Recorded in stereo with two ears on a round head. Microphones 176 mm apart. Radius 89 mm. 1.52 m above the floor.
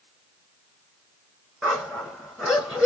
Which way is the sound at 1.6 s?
5° right (ahead or behind).